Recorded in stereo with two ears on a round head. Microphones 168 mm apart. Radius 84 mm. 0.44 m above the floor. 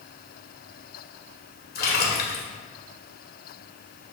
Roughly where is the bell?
I don't hear a bell.